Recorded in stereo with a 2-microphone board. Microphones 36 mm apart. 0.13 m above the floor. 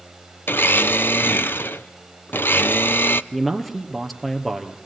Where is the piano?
I don't hear a piano.